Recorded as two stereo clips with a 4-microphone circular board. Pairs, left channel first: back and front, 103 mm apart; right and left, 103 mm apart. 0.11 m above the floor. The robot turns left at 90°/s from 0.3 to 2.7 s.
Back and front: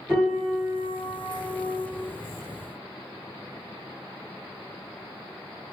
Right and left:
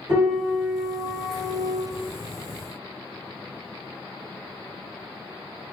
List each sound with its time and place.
0.1 s a piano: 75° left, 1.9 m; by 1.8 s 60° right, 1.9 m